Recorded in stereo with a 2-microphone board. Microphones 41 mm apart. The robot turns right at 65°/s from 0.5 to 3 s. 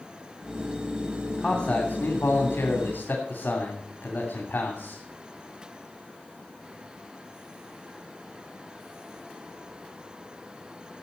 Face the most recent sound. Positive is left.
turn(degrees=115)